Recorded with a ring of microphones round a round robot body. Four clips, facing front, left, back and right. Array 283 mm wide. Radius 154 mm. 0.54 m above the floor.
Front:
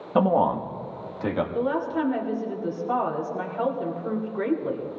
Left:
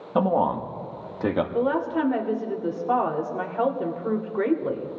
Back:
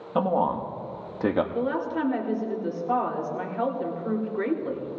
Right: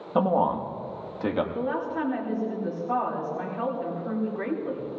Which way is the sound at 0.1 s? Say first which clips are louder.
Left 1 dB, front 3 dB; 10° left.